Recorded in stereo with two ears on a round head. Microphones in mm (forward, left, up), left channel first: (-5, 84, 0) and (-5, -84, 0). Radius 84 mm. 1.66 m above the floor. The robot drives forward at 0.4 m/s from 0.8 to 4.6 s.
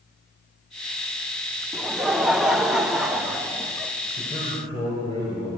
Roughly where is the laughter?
Centre.